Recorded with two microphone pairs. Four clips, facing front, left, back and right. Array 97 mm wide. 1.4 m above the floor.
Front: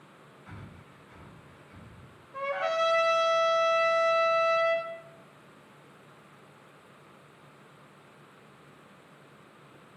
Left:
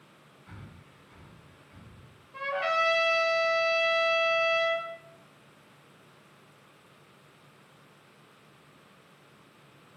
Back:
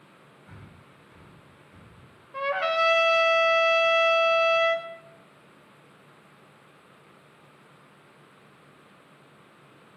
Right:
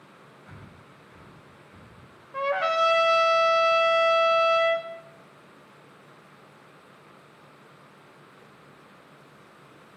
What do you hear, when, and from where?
0.5 s breathing: 15° right, 1.8 m
2.3 s a trumpet: 115° right, 0.9 m